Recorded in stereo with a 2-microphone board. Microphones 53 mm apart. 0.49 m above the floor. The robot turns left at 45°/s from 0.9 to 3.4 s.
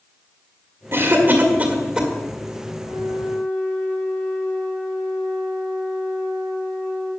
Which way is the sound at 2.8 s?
45° left (ahead or behind).